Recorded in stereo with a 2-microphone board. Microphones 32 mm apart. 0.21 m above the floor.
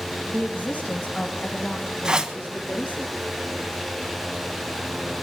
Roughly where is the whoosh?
Right.